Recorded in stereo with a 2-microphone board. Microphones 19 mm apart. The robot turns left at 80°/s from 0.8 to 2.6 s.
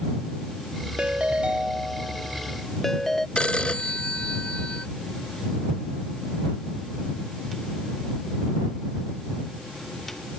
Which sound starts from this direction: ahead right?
A ringtone, at 1.0 s.